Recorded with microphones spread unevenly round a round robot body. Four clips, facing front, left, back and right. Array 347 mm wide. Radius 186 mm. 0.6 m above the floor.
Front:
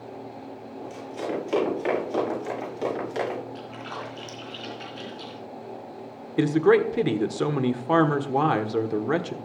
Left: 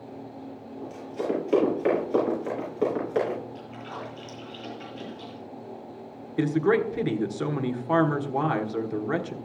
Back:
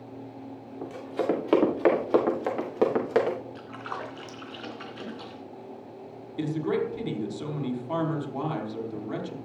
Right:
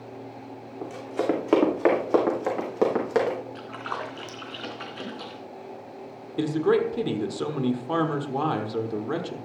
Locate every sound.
0.8 s running footsteps: 105° right, 5.5 m; by 3.4 s 125° right, 6 m
3.5 s a splash: 100° right, 3 m
6.4 s a man speaking: 5° right, 1.7 m